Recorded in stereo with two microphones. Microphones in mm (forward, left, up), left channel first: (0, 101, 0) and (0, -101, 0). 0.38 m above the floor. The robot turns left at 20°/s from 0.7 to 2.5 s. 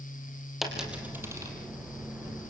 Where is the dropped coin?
Centre (ahead or behind), 4.5 m; by 1.5 s 20° right (ahead or behind), 4.5 m.